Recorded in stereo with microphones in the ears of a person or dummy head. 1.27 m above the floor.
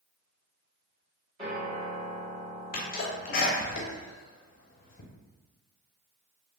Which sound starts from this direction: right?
A piano, at 1.4 s.